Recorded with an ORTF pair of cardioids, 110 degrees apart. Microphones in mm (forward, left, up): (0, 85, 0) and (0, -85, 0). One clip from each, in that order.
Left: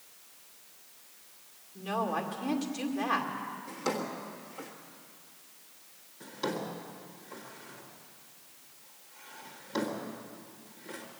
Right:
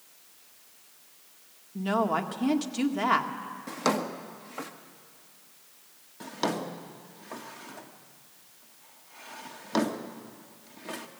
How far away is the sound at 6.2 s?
About 1.6 m.